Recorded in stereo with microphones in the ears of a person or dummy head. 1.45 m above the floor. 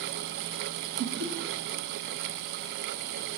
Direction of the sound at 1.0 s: 80° right.